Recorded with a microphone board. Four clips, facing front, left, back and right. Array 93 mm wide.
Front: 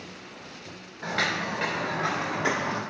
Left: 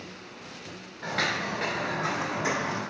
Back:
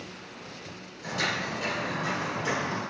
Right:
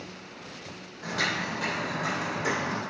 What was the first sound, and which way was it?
Footsteps, 30° left.